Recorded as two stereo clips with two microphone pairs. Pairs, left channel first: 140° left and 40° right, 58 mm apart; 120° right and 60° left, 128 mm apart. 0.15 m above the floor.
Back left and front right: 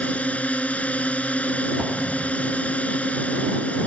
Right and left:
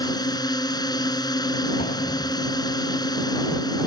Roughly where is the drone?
Behind.